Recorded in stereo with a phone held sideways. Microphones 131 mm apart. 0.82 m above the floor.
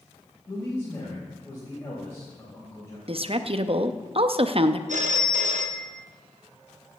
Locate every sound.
0.5 s a man speaking: 20° left (ahead or behind), 4 m
3.1 s a woman speaking: 50° right (ahead or behind), 0.6 m
4.9 s a phone ringing: 75° right (ahead or behind), 0.6 m